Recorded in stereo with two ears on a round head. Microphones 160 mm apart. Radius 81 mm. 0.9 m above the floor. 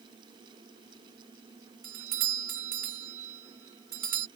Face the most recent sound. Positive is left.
turn(degrees=-50)  # may be behind; listen again after turning